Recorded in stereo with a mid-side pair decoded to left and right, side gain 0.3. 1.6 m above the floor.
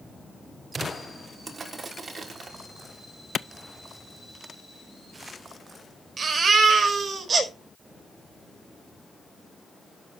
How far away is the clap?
About 0.6 m.